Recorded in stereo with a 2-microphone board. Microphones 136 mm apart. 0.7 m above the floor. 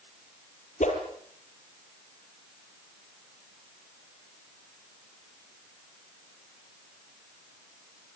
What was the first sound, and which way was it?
A whoosh, 75° left (ahead or behind).